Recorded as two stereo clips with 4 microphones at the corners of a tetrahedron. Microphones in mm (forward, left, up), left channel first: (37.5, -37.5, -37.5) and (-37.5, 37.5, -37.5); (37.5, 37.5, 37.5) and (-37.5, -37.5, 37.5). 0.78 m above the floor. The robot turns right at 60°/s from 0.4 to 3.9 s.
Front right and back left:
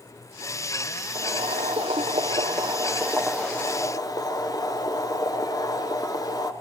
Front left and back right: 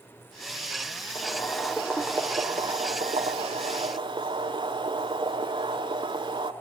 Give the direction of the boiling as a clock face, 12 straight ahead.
9 o'clock.